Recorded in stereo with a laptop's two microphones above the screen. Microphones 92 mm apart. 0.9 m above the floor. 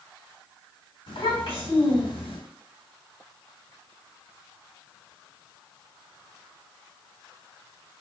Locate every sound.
1.1 s a child speaking: 75° left (ahead or behind), 1.8 m